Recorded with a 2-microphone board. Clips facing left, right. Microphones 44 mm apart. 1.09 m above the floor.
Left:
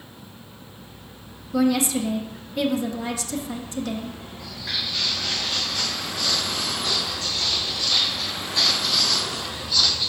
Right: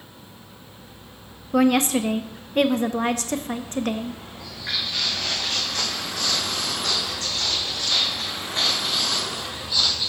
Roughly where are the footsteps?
Right.